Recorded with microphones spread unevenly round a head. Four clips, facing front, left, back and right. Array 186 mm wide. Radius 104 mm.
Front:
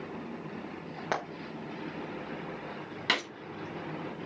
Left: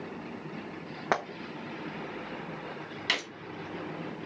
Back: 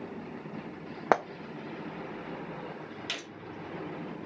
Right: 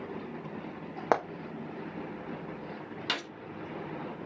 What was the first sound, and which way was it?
Frying, 150° right.